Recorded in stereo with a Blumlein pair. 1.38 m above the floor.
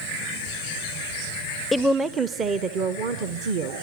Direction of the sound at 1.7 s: 5° left.